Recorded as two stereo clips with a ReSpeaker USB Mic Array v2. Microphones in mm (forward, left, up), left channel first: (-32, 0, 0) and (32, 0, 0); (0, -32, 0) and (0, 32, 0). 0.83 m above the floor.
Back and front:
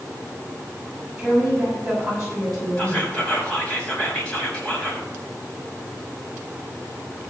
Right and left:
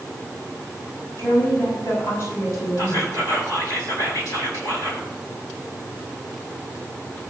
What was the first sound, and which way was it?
A woman speaking, 80° right.